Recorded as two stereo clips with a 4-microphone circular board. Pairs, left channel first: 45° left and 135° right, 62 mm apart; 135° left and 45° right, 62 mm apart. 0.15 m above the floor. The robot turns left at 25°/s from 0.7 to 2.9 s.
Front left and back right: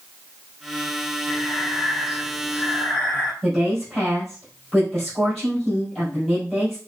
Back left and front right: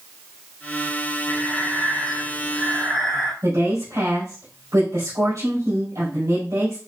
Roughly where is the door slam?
I don't hear a door slam.